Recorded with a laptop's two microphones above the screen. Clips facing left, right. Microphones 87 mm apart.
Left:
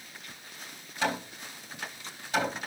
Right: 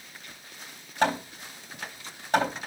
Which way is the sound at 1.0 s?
50° right (ahead or behind).